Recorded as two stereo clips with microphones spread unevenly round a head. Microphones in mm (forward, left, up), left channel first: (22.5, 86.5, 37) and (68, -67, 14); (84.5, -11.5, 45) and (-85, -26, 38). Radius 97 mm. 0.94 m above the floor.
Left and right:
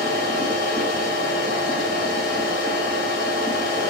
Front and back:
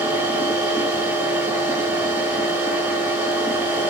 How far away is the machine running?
About 0.9 m.